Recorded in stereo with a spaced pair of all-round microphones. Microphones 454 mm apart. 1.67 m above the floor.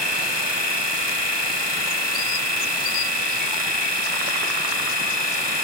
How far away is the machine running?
About 1.4 m.